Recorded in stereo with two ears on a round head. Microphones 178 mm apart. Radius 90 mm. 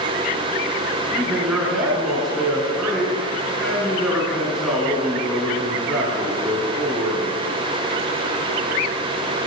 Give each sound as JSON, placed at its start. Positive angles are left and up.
{"t": 1.1, "sound": "a man speaking", "side_deg": 0, "distance_m": 7.0}